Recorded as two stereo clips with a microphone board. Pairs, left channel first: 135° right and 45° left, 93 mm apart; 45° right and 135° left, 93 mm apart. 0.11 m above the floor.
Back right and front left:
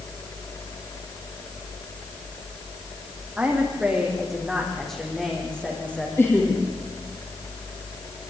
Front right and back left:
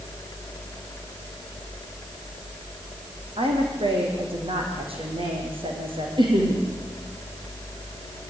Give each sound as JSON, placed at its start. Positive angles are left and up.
{"t": 3.4, "sound": "a woman speaking", "azimuth_deg": 125, "distance_m": 6.0}
{"t": 6.2, "sound": "laughter", "azimuth_deg": 160, "distance_m": 5.5}